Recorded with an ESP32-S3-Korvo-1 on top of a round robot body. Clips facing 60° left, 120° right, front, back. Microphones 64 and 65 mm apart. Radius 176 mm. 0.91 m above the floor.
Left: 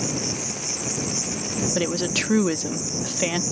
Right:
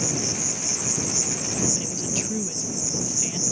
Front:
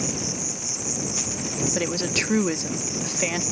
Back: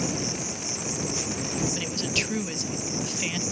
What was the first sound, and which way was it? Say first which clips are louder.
An insect: left 1 dB, even; 120° left.